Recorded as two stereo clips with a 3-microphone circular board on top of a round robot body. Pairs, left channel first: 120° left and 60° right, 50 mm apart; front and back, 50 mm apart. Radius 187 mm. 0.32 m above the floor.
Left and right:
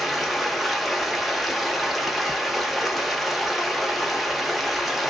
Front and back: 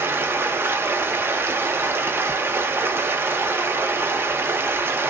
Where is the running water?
150° right, 0.8 m.